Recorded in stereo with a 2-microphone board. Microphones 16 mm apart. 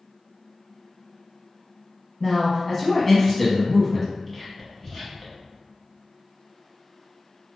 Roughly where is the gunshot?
No gunshot in this recording.